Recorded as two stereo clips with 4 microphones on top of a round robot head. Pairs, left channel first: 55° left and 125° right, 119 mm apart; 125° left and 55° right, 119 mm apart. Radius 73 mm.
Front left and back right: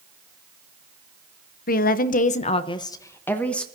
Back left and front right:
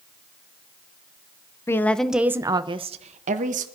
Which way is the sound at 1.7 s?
55° left.